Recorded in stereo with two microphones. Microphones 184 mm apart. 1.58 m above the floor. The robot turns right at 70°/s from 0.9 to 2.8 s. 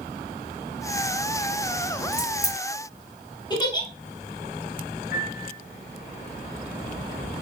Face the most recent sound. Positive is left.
turn(degrees=65)  # may be behind; listen again after turning